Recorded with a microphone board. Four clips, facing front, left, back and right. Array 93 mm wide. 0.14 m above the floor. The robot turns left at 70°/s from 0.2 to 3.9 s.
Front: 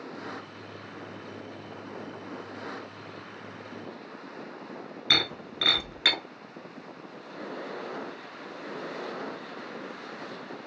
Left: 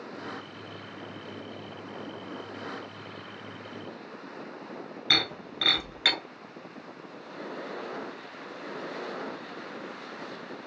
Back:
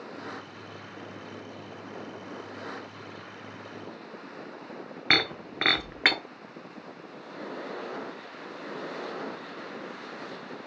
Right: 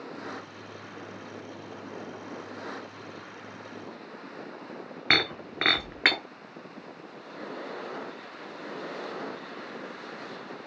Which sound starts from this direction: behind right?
Breaking glass, at 5.1 s.